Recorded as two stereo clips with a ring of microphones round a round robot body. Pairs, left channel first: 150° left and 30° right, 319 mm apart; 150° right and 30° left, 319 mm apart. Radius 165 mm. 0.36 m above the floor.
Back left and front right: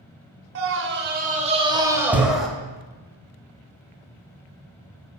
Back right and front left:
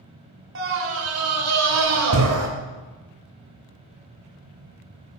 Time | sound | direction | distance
0.6 | a scream | 5° right | 1.8 m